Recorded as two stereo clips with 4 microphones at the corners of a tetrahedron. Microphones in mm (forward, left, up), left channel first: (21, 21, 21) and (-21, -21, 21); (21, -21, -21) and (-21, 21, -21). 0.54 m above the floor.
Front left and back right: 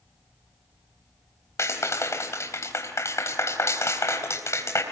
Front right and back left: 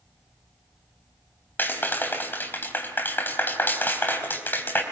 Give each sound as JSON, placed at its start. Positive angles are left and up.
{"t": 1.6, "sound": "a clap", "azimuth_deg": 10, "distance_m": 3.5}